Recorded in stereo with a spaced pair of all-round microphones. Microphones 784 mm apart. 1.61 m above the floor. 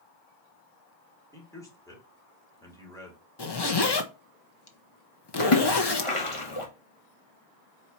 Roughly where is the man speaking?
Centre.